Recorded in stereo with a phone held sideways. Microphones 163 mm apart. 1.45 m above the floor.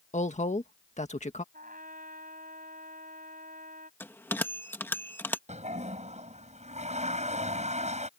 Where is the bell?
15° left (ahead or behind).